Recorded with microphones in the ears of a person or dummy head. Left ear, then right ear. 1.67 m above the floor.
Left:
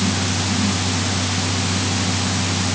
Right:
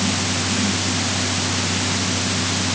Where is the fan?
80° left.